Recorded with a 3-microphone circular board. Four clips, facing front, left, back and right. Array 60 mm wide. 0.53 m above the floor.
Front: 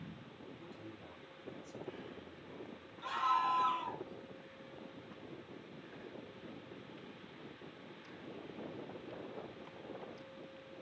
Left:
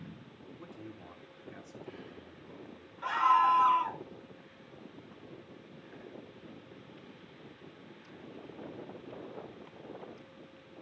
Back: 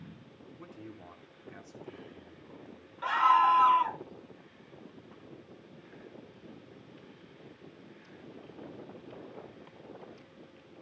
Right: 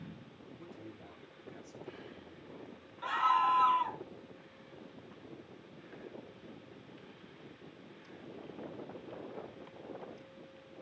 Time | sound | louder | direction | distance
0.6 | a man speaking | left 2 dB, back 3 dB | 160° left | 5.5 m
3.0 | a scream | left 4 dB, back 10 dB | 175° left | 1.4 m